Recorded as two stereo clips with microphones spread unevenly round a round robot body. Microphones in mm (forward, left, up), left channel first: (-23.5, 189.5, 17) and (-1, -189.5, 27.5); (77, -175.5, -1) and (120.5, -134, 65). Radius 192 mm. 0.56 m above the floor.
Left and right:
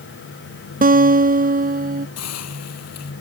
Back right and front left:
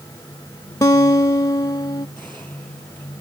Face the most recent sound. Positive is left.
turn(degrees=145)